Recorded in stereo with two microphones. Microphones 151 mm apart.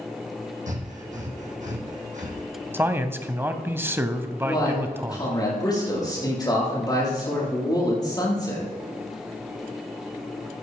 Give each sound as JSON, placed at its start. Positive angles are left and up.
{"t": 0.7, "sound": "breathing", "side_deg": -55, "distance_m": 3.0}
{"t": 2.7, "sound": "a man speaking", "side_deg": -15, "distance_m": 1.0}
{"t": 4.4, "sound": "a man speaking", "side_deg": 25, "distance_m": 6.0}